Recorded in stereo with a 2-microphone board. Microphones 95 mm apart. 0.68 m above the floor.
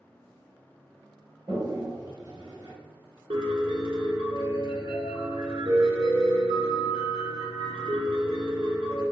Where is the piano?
75° right (ahead or behind), 1.5 m.